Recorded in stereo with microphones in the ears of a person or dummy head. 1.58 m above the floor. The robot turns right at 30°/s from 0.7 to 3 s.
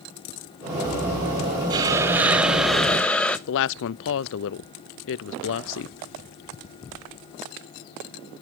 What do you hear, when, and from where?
1.7 s a hiss: 35° right, 0.8 m; by 3.4 s 5° left, 0.8 m
3.5 s a woman speaking: 65° left (ahead or behind), 0.5 m